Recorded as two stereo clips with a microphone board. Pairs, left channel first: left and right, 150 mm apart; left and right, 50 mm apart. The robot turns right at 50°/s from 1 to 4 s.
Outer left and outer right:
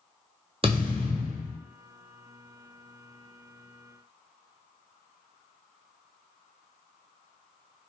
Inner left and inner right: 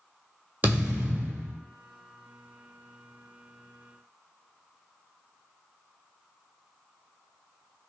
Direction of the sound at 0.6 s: 40° right (ahead or behind).